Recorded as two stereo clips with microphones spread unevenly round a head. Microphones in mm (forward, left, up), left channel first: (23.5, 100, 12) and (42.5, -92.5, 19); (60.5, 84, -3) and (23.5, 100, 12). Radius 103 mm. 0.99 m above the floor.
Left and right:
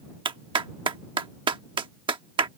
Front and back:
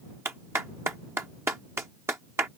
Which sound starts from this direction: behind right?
A clap, at 0.2 s.